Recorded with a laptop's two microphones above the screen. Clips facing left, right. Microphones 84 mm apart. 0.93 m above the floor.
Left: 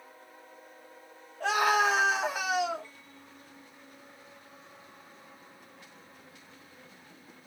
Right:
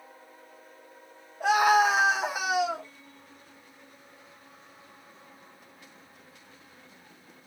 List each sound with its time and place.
1.4 s a scream: 15° right (ahead or behind), 0.9 m